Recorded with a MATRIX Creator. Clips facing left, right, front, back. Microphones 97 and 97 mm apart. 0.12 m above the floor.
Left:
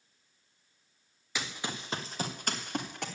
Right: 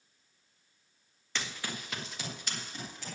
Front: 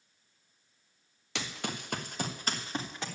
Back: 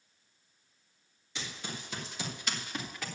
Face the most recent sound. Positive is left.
turn(degrees=65)